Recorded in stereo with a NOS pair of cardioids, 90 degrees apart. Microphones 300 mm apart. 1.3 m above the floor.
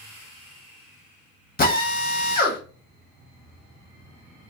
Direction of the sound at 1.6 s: 30° left.